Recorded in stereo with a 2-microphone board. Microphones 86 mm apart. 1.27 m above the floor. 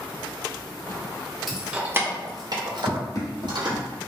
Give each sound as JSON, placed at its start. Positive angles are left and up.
{"t": 1.5, "sound": "keys jangling", "side_deg": -5, "distance_m": 0.6}
{"t": 2.9, "sound": "running footsteps", "side_deg": 35, "distance_m": 1.9}